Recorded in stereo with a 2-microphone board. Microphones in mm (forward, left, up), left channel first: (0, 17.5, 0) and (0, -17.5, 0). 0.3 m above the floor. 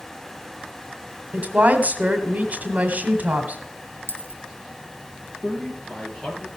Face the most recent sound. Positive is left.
turn(degrees=15)  # may be behind; listen again after turning